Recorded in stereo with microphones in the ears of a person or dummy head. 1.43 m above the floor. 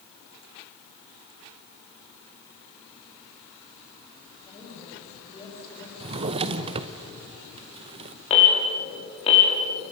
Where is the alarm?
35° left (ahead or behind), 5.5 m.